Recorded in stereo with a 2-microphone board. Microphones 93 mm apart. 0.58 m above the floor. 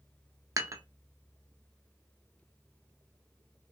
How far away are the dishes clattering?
About 0.5 m.